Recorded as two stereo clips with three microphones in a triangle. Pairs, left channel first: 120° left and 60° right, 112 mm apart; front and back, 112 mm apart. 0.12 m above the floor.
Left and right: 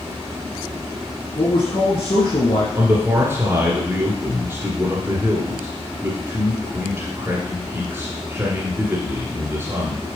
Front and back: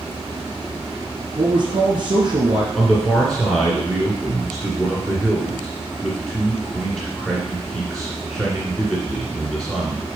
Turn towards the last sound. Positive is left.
turn(degrees=-80)